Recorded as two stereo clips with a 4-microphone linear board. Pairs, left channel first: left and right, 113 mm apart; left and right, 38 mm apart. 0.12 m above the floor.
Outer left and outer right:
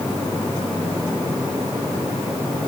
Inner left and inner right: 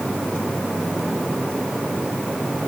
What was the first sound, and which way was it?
Only background noise.